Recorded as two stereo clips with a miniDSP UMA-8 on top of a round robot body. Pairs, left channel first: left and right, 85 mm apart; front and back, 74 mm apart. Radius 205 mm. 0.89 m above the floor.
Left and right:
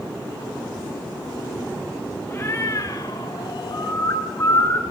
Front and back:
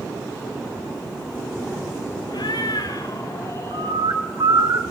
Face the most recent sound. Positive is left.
turn(degrees=150)